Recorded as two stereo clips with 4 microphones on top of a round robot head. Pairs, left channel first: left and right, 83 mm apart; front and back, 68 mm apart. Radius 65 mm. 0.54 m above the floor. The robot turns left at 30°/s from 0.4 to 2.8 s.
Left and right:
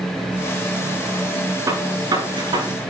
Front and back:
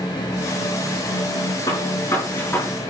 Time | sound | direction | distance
1.7 | a gunshot | 45° right | 8 m